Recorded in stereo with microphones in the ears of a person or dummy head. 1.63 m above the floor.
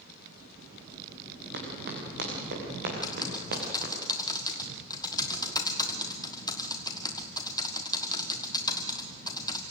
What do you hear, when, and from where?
1.5 s running footsteps: 65° right (ahead or behind), 6.5 m; by 3.9 s 55° right (ahead or behind), 7 m
3.0 s typing on a keyboard: 20° left (ahead or behind), 1.4 m